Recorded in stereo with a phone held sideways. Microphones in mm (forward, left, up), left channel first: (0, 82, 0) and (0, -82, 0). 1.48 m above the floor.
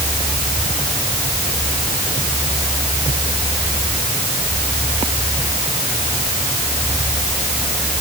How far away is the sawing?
I don't hear sawing.